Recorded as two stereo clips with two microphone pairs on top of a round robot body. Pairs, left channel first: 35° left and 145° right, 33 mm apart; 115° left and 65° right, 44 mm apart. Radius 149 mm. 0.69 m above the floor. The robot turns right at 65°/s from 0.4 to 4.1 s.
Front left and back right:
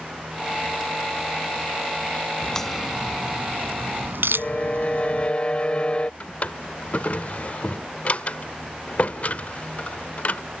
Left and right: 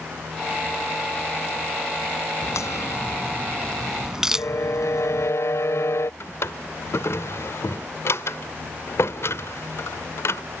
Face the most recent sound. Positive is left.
turn(degrees=90)